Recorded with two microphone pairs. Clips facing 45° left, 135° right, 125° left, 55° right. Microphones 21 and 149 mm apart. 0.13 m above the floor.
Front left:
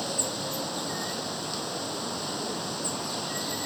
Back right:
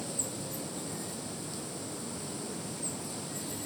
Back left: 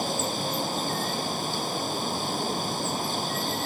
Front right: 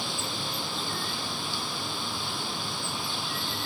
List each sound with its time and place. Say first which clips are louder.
0.0 s running water: front left 7 dB, back left 6 dB; 80° left